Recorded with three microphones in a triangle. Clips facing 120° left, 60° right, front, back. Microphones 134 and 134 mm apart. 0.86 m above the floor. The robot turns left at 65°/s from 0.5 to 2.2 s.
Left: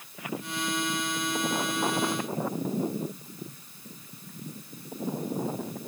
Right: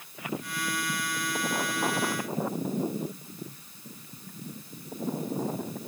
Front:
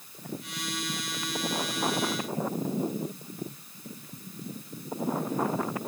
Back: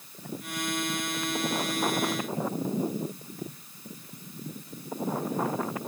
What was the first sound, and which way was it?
Only background noise.